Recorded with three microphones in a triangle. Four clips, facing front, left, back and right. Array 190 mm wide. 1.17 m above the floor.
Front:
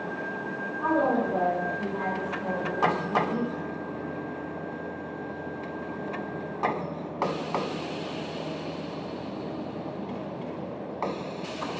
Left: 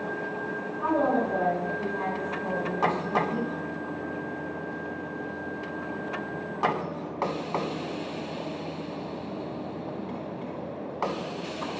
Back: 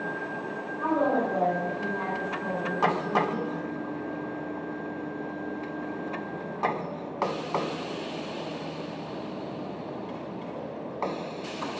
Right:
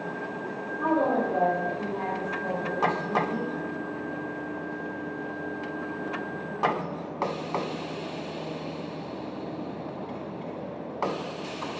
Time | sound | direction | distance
0.8 | a woman speaking | 60° right | 1.6 m